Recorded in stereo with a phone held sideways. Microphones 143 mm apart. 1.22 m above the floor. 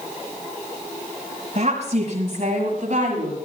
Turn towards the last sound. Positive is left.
turn(degrees=-60)  # may be behind; listen again after turning